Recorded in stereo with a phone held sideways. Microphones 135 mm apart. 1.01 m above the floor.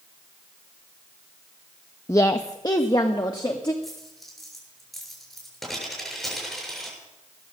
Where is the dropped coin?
Centre (ahead or behind), 7 m.